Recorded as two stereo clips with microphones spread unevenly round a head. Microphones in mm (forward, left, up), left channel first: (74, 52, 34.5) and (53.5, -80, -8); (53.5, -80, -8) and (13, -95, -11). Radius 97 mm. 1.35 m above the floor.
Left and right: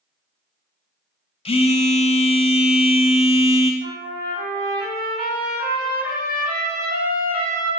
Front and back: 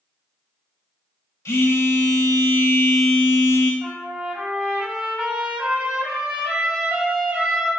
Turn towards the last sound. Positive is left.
turn(degrees=-95)